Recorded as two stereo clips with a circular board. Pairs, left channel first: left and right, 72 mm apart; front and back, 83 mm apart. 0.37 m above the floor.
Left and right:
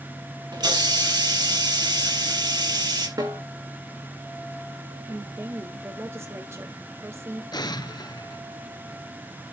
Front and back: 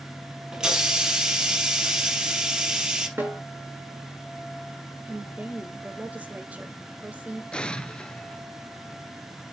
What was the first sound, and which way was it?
A hiss, 100° right.